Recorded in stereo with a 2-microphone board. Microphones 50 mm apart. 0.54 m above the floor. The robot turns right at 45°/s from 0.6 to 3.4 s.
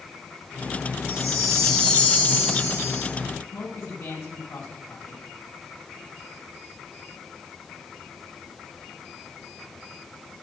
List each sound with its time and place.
1.1 s a chime: 20° right, 5.5 m; by 3.1 s 70° left, 5.5 m
3.5 s a man speaking: 80° left, 3.5 m